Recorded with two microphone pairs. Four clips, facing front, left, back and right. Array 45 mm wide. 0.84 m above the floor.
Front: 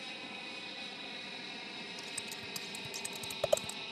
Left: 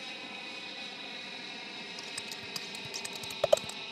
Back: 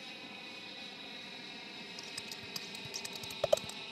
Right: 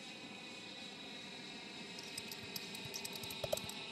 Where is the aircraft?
70° left.